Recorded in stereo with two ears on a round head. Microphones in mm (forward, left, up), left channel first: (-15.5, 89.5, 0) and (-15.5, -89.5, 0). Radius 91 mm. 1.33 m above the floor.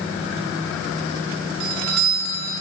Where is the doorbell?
80° right, 4 m.